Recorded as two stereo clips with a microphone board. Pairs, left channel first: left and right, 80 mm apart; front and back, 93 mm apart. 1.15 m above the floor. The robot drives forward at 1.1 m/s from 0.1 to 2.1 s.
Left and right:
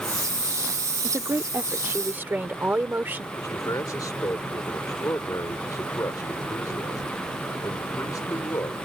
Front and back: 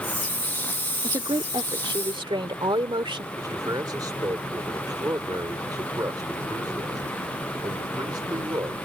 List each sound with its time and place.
1.0 s a woman speaking: 140° right; by 3.2 s 155° right
3.3 s a man speaking: 135° left